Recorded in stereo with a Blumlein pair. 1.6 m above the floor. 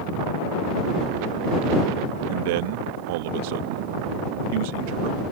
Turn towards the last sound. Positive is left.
turn(degrees=-50)